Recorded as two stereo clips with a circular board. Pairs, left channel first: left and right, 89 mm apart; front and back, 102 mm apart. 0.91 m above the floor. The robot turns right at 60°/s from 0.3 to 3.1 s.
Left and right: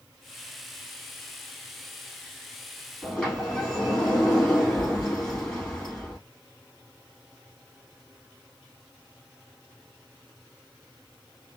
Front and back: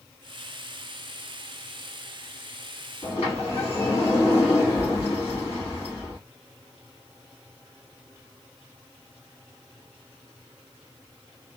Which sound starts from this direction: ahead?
A sliding door, at 3.0 s.